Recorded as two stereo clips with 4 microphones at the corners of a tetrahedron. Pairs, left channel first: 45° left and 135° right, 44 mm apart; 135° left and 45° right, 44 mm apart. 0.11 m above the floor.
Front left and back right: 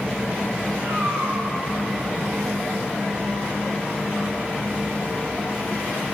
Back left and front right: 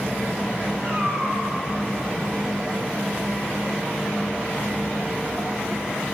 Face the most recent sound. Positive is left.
turn(degrees=-145)